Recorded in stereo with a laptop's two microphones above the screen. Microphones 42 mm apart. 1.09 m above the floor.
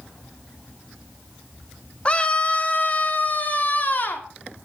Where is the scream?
30° left (ahead or behind), 2.5 m; by 4.3 s 50° left (ahead or behind), 3.5 m.